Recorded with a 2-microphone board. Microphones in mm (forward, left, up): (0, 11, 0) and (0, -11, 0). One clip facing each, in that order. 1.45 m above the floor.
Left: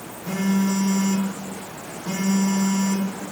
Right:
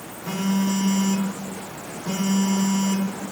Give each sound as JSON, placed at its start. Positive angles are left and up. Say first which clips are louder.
{"t": 0.2, "sound": "a phone buzzing", "louder": "left 1 dB", "side_deg": -30, "distance_m": 3.5}